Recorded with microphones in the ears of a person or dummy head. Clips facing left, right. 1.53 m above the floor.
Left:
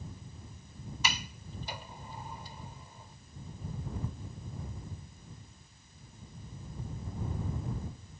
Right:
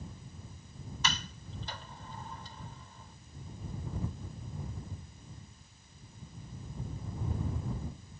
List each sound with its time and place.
1.0 s a sliding door: 15° left (ahead or behind)